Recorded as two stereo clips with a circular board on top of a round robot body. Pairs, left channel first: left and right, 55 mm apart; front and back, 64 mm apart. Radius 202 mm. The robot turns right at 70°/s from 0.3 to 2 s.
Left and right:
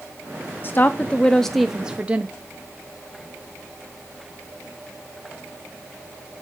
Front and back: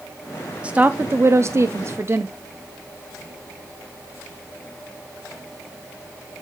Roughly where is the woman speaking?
Behind left.